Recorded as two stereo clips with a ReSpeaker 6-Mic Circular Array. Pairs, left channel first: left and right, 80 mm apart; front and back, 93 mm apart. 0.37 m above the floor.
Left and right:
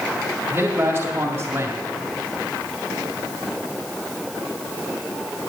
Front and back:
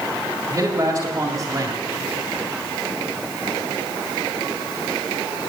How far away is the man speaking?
About 1.9 m.